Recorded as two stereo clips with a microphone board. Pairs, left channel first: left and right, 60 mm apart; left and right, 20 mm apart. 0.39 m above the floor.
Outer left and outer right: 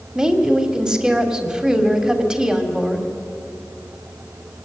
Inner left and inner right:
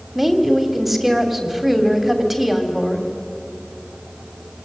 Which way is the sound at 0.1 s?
15° right (ahead or behind).